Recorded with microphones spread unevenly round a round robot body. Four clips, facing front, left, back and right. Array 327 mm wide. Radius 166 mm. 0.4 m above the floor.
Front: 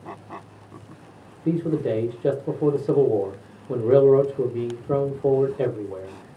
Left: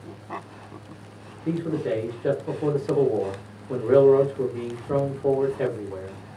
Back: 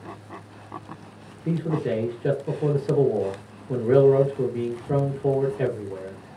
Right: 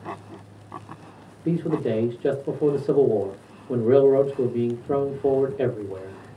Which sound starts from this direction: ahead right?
A man speaking, at 1.4 s.